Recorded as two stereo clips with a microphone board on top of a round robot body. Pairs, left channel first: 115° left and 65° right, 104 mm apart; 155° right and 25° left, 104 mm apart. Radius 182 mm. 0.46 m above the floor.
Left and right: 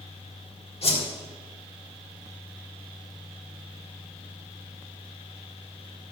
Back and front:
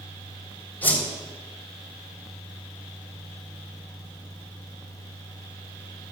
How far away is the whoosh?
About 3.5 m.